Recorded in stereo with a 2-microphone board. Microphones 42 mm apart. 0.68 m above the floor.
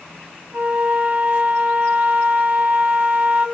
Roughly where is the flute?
Right.